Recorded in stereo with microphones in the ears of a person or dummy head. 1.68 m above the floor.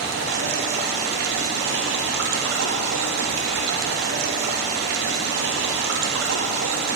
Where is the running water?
75° right (ahead or behind), 0.7 m.